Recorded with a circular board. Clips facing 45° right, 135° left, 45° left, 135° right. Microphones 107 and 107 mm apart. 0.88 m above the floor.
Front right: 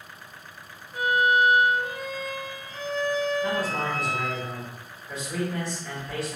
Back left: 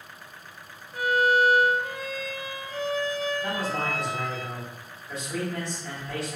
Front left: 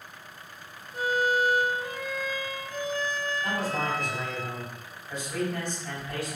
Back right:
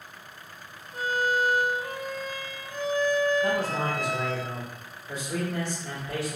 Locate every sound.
0.9 s a violin: 140° right, 0.9 m
3.4 s a man speaking: 130° right, 1.9 m